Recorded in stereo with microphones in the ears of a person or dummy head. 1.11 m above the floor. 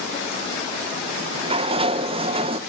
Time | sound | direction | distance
1.1 | a sliding door | 25° right (ahead or behind) | 0.6 m